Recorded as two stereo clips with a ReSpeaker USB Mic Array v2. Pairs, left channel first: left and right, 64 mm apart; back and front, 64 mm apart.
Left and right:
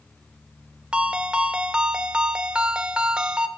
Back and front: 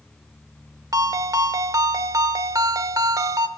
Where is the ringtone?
15° right, 0.8 m.